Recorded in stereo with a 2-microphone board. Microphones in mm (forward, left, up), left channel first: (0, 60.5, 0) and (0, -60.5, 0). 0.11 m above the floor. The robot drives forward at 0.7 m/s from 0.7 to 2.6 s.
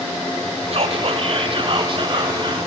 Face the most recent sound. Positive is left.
turn(degrees=-40)  # may be behind; listen again after turning